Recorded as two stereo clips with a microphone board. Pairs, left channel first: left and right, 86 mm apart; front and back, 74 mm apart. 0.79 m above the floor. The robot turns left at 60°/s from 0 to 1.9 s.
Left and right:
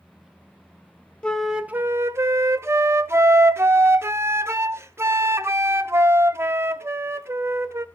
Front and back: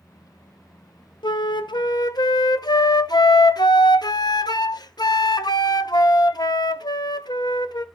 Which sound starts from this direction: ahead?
A flute, at 1.2 s.